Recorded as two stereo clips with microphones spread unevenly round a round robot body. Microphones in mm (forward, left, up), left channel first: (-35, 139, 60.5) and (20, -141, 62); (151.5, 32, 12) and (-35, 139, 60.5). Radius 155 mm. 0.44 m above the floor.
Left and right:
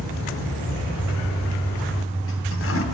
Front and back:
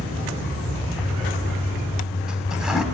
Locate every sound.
1.0 s a toilet flushing: 60° left, 3 m